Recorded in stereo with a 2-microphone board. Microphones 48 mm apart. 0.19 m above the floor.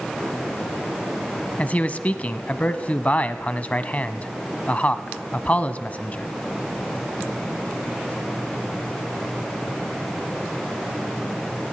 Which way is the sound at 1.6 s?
30° left (ahead or behind).